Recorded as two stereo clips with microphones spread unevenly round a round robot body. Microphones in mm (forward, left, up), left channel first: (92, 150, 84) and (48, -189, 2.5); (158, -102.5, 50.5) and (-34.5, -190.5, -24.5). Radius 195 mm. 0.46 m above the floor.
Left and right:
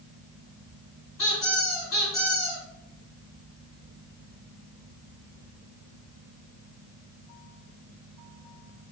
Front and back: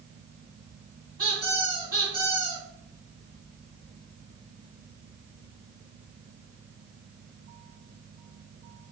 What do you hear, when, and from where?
1.2 s a squeak: 150° left, 1.8 m